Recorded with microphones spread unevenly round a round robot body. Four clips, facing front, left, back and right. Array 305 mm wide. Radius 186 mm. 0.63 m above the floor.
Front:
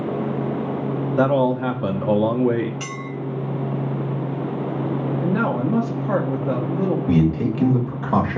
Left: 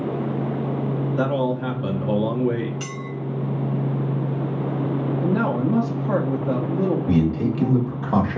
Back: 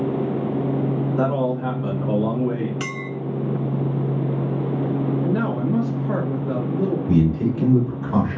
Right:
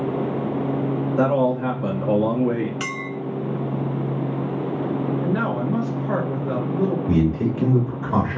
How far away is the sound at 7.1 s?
About 1.8 m.